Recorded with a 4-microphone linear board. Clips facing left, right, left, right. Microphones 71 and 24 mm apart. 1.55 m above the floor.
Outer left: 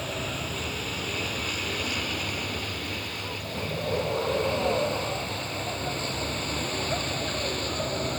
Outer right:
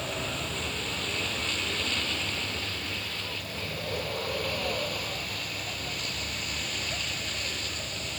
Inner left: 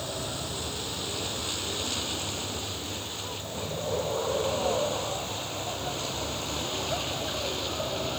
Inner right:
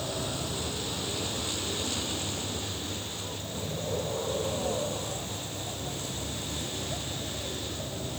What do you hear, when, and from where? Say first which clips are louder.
0.0 s a vehicle: outer left 1 dB, inner right 1 dB; 5° left (ahead or behind); by 8.2 s 45° left (ahead or behind)